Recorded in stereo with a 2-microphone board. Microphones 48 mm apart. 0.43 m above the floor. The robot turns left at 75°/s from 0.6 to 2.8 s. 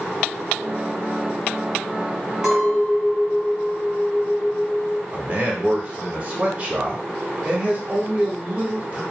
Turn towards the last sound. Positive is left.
turn(degrees=-30)  # may be behind; listen again after turning